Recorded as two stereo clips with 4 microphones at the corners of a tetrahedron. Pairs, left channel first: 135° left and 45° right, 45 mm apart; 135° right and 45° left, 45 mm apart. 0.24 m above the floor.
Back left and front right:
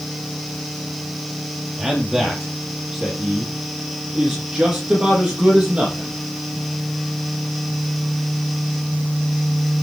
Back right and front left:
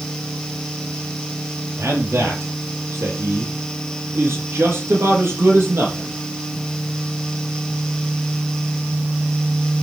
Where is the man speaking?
35° left, 6 m; by 6.2 s 20° left, 8 m.